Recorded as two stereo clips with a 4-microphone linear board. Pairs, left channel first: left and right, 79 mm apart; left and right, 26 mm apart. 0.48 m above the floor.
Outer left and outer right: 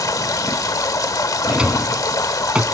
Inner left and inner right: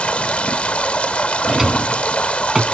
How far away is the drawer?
About 1.2 m.